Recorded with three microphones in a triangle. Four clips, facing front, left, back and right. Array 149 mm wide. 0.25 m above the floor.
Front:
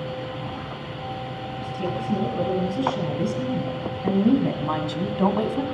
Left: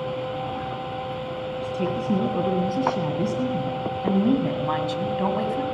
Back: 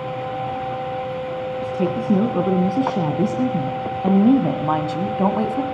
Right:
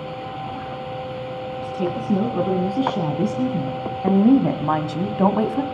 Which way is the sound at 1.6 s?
170° right.